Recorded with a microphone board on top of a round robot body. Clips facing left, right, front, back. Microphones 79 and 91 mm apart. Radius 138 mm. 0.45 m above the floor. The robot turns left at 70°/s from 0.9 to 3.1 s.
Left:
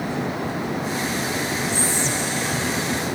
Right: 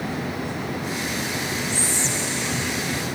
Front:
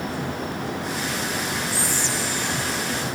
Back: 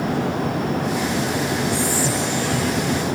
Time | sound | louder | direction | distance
1.7 | whispering | left 3 dB, back 6 dB | 120° left | ?